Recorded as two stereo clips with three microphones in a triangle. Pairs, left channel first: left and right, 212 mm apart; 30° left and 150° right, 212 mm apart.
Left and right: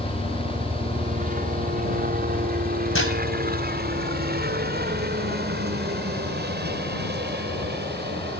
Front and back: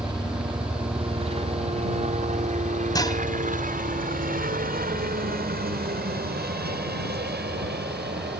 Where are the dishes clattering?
100° left.